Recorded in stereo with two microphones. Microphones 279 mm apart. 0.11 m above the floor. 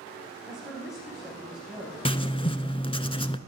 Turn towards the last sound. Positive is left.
turn(degrees=20)  # may be behind; listen again after turning